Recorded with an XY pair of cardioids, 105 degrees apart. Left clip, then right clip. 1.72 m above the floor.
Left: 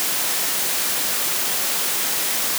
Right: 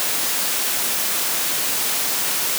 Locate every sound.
Only background noise.